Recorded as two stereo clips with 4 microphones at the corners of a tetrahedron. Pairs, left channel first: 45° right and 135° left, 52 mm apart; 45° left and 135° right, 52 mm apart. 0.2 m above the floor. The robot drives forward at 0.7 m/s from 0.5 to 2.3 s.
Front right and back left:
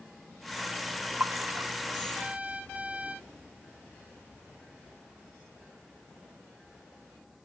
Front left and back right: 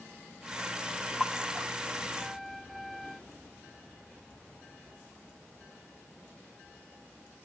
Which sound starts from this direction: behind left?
A splash, at 1.2 s.